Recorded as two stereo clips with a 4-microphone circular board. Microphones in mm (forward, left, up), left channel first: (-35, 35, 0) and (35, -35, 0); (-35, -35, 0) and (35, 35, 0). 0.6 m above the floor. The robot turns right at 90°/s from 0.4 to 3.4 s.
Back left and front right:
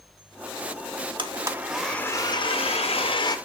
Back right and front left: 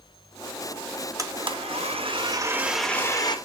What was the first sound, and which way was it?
A blender, 10° right.